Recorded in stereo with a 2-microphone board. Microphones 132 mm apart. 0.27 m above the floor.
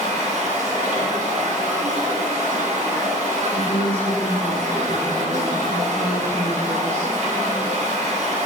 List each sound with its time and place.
0.0 s running water: 70° right (ahead or behind), 3 m
3.5 s a woman speaking: 15° left (ahead or behind), 2 m